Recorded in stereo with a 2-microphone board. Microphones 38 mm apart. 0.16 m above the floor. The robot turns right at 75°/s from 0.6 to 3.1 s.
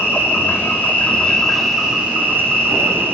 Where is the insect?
105° left, 1.7 m; by 3.1 s 70° right, 1.7 m.